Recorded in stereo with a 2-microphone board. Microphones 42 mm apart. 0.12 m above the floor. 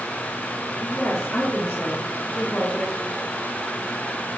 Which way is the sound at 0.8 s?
50° left (ahead or behind).